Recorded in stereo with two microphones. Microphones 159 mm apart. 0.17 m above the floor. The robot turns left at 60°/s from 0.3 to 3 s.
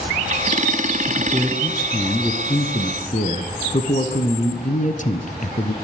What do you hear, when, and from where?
1.1 s a man speaking: 140° right, 1.9 m; by 5.7 s 105° left, 1.9 m